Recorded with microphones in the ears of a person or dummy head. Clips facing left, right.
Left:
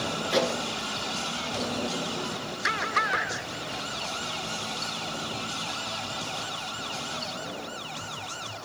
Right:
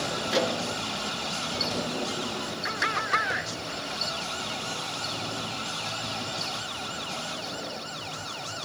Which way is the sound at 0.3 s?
Centre (ahead or behind).